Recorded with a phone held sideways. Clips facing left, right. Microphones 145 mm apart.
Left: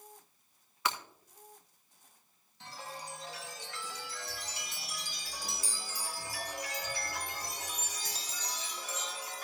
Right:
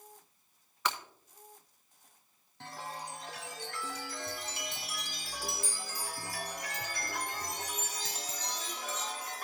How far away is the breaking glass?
About 1.3 m.